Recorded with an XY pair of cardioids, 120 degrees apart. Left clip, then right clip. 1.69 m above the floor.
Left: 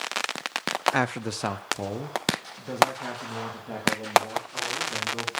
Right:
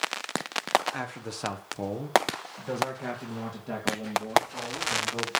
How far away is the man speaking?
About 0.6 m.